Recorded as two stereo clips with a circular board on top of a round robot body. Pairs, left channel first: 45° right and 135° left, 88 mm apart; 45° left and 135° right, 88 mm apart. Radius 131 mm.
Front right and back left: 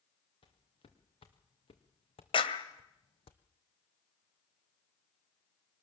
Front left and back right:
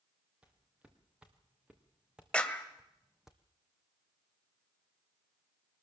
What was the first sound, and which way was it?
Footsteps, 55° right.